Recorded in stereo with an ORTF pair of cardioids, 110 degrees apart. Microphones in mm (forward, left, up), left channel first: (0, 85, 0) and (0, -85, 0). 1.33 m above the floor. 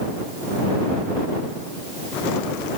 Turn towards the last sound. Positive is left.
No sound to turn to.